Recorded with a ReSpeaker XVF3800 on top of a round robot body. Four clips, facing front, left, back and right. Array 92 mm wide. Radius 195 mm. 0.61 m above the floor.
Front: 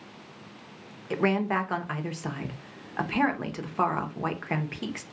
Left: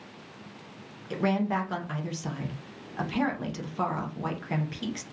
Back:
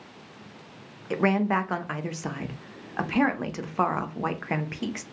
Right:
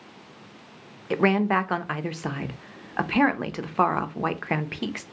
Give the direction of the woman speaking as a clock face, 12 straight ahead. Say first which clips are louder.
Right 6 dB, back 2 dB; 3 o'clock.